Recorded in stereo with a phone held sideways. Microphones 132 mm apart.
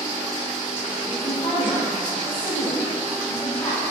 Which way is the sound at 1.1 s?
25° left (ahead or behind).